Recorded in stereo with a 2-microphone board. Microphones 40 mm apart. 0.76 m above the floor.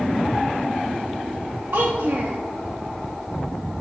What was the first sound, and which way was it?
A child speaking, 60° right (ahead or behind).